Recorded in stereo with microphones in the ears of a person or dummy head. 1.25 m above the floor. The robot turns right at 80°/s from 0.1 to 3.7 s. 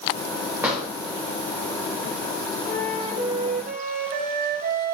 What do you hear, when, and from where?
0.6 s a drawer: 15° right (ahead or behind), 1.6 m; by 0.8 s 30° right (ahead or behind), 1.6 m
2.7 s a flute: 160° left, 0.7 m; by 4.9 s 115° right, 0.7 m